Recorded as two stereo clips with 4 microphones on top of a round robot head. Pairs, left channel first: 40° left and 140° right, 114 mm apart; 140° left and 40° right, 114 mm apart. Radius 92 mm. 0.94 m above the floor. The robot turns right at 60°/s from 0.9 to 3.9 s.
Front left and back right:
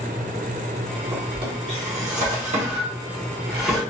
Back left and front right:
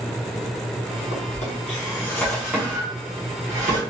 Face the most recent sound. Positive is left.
turn(degrees=-40)